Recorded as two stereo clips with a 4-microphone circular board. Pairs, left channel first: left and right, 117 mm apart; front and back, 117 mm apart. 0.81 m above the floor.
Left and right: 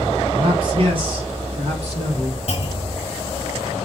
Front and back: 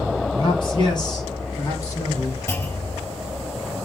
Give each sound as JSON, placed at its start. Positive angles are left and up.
{"t": 0.3, "sound": "a man speaking", "azimuth_deg": -45, "distance_m": 5.0}
{"t": 2.5, "sound": "a clunk", "azimuth_deg": 65, "distance_m": 2.5}